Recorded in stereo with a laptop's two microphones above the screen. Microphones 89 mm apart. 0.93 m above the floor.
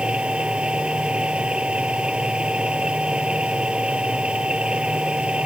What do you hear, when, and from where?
0.0 s a machine running: 10° right (ahead or behind)